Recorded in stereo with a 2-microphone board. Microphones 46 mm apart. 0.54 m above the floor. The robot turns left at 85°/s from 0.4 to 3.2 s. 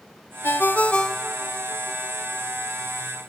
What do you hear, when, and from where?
0.4 s a ringtone: 55° left (ahead or behind), 0.7 m; by 3.3 s 10° right (ahead or behind), 0.7 m